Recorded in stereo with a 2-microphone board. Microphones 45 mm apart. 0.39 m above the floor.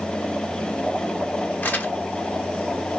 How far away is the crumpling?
About 0.8 m.